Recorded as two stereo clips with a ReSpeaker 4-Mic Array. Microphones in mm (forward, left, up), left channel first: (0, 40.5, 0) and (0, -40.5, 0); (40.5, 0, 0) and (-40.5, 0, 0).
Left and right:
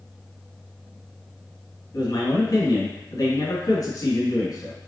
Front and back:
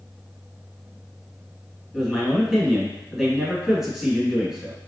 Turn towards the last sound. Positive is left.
turn(degrees=95)